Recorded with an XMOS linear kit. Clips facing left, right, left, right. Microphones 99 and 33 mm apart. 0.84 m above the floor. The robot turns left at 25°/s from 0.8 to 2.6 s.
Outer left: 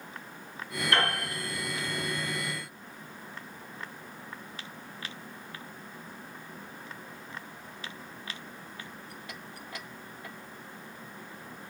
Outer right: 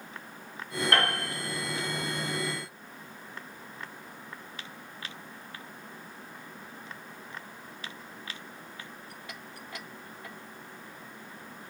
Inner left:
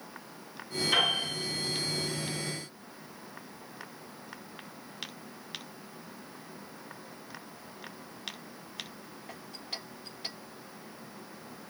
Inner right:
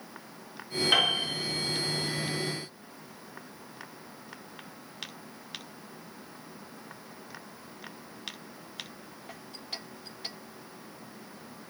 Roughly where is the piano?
Right.